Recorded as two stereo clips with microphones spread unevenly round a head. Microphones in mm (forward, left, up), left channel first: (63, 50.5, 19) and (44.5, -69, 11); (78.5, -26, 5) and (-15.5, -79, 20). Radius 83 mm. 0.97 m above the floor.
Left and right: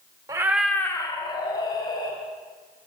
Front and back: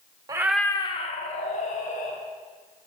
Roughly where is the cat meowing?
Behind right.